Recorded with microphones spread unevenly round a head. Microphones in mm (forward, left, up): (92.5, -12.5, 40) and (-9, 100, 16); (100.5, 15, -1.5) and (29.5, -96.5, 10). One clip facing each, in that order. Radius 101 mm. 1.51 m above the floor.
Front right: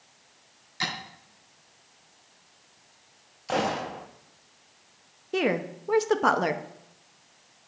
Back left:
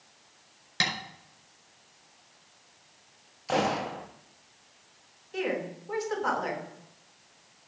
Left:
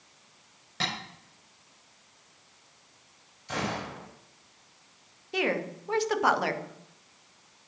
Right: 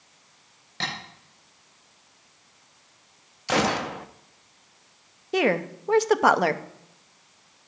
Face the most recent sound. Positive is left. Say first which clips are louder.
# front right 5 dB, right 6 dB
turn(degrees=-80)